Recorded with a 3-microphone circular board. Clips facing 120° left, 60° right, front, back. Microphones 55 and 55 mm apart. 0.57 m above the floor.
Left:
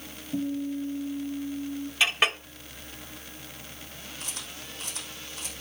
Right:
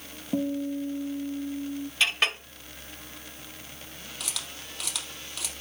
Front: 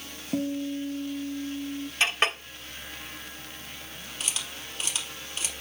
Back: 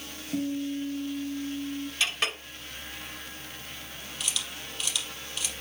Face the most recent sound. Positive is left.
turn(degrees=-65)